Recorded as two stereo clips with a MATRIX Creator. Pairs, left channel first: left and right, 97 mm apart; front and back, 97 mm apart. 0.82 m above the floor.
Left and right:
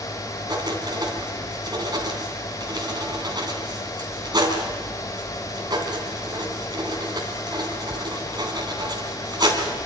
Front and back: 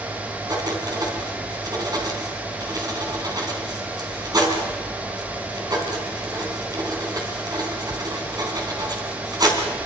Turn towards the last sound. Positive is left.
turn(degrees=-135)